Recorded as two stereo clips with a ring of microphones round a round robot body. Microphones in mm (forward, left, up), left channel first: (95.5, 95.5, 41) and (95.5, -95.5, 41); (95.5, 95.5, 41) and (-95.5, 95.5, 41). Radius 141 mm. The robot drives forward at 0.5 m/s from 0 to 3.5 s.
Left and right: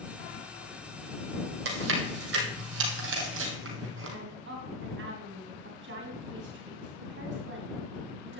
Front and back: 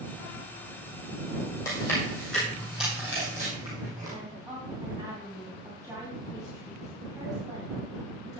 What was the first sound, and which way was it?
Chewing, 80° right.